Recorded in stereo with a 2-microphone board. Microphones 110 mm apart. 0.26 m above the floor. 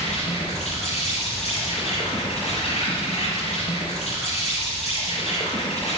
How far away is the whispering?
I don't hear whispering.